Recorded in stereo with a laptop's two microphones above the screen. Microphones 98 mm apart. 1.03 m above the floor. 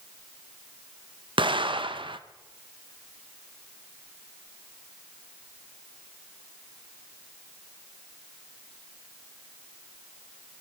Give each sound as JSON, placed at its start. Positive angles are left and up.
{"t": 1.4, "sound": "an explosion", "side_deg": -60, "distance_m": 0.7}